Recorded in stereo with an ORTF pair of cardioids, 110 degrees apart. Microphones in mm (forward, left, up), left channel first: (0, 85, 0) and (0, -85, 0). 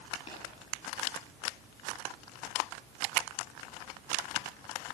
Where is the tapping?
35° left, 9 m.